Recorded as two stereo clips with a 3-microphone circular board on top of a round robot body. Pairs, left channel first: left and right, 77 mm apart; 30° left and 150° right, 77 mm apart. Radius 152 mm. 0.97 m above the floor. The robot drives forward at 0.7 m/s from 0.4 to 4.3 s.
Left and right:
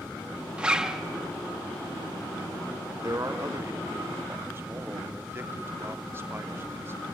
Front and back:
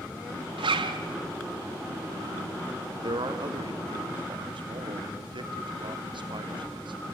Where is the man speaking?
135° right, 1.9 m; by 7.0 s 150° right, 2.5 m.